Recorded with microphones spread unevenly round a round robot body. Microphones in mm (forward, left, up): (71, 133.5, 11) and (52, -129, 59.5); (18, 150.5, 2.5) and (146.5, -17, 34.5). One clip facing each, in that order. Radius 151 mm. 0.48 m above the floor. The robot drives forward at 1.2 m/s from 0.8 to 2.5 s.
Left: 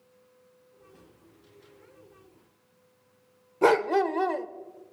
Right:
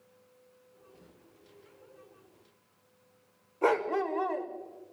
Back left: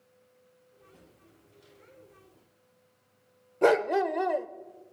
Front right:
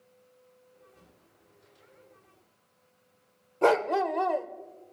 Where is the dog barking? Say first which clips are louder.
Left 6 dB, back left 1 dB; 55° left, 0.7 m.